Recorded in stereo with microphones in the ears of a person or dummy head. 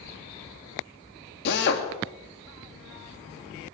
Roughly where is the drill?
Left.